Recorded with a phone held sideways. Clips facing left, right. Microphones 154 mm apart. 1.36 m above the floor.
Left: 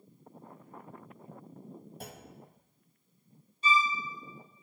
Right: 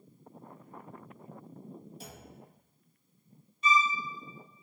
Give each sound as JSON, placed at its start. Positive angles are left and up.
{"t": 2.0, "sound": "a clunk", "side_deg": 55, "distance_m": 0.6}
{"t": 3.6, "sound": "a violin", "side_deg": 35, "distance_m": 0.6}